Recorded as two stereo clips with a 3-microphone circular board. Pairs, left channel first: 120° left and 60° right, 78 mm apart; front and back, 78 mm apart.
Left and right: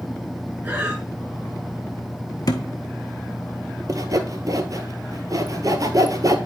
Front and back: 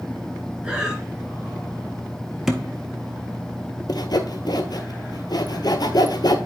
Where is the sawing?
25° right, 0.8 m.